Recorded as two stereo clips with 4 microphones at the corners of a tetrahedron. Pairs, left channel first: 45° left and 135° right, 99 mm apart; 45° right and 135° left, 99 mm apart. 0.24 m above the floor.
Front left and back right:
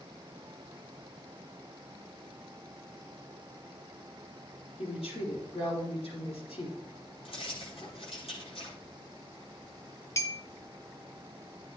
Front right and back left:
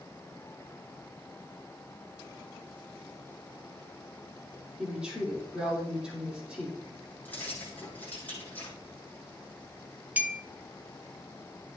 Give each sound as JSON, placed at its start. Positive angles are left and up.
{"t": 4.8, "sound": "a woman speaking", "azimuth_deg": 55, "distance_m": 5.5}
{"t": 7.2, "sound": "keys jangling", "azimuth_deg": 30, "distance_m": 6.0}
{"t": 10.2, "sound": "a clink", "azimuth_deg": 80, "distance_m": 0.9}